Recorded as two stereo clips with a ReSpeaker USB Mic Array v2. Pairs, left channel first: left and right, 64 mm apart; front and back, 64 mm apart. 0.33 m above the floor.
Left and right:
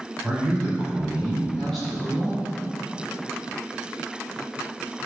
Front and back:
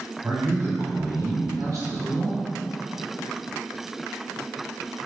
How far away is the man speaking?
About 1.8 m.